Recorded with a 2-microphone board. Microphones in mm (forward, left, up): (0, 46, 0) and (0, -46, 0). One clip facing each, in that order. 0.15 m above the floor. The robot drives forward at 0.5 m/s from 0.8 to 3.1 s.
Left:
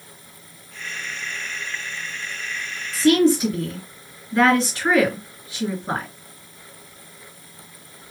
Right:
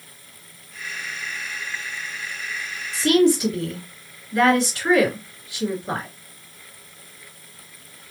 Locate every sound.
2.9 s a woman speaking: 25° left (ahead or behind), 2 m